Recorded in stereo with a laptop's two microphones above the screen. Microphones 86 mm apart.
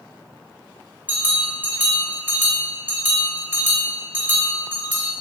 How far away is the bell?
About 3 m.